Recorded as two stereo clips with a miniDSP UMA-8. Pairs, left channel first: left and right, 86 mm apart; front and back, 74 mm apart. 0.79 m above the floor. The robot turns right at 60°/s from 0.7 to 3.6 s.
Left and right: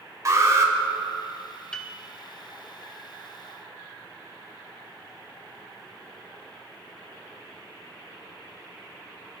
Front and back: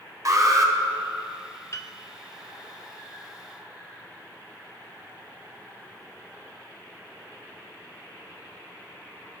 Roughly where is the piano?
Ahead.